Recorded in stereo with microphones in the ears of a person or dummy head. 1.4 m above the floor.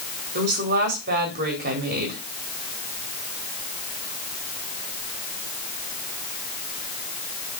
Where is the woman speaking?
50° right (ahead or behind), 4 m.